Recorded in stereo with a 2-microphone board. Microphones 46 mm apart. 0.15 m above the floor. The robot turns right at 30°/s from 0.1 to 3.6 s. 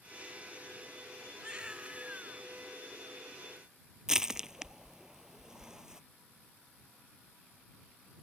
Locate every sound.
1.4 s a baby crying: 15° right (ahead or behind); by 2.4 s 35° right (ahead or behind)
4.1 s crushing: 10° right (ahead or behind)